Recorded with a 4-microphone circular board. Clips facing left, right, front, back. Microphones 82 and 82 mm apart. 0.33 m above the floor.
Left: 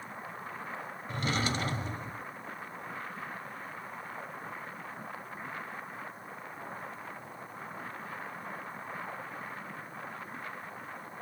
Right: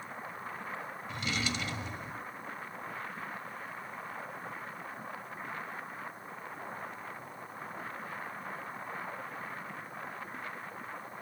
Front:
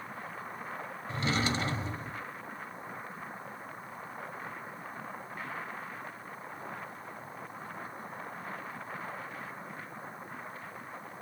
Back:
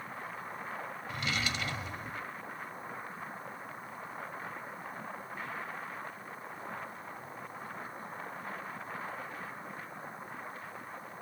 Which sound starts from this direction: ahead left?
A drawer, at 1.1 s.